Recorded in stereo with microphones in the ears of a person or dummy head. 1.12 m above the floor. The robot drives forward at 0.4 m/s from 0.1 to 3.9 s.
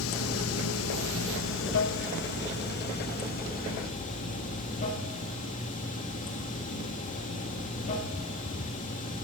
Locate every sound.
0.0 s running water: 75° left (ahead or behind), 1.2 m; by 9.3 s 40° left (ahead or behind), 1.8 m